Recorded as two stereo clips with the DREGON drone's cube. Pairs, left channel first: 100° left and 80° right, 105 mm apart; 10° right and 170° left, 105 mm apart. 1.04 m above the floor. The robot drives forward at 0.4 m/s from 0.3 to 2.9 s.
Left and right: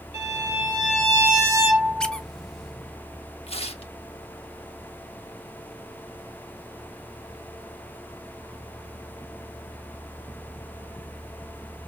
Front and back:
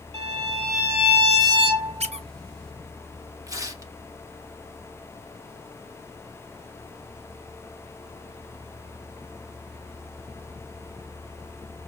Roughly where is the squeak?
Behind.